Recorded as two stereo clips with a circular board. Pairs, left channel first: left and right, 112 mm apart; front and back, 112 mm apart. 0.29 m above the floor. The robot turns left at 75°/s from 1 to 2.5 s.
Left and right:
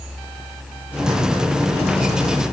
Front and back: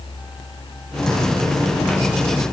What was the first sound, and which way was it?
Only background noise.